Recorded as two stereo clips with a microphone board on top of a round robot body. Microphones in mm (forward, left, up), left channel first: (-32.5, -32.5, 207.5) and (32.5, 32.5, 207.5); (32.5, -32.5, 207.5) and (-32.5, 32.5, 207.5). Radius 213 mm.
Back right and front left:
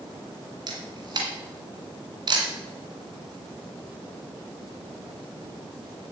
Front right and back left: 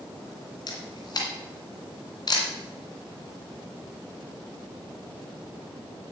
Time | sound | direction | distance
0.7 | a camera shutter | straight ahead | 2 m